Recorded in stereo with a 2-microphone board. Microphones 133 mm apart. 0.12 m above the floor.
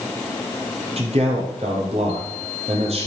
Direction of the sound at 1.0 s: 50° right (ahead or behind).